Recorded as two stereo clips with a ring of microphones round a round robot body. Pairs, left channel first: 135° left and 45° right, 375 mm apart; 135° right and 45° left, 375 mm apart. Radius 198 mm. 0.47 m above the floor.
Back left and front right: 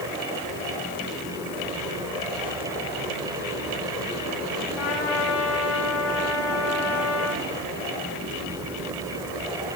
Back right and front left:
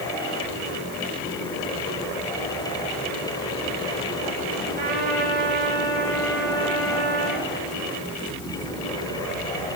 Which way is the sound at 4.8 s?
115° left.